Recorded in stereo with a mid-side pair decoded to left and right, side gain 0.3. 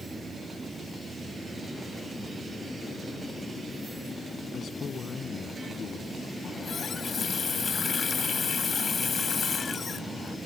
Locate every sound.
4.5 s a man speaking: 70° left
6.4 s a running tap: 60° left